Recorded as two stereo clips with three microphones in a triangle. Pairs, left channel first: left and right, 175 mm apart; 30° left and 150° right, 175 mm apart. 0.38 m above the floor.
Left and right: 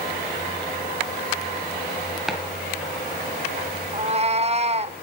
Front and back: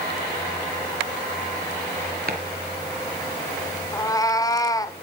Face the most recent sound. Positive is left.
turn(degrees=-40)